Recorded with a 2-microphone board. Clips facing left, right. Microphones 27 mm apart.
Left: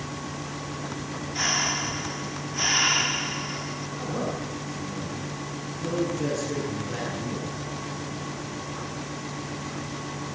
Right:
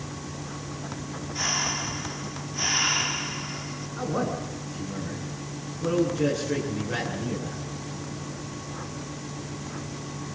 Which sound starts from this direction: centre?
Breathing, at 1.4 s.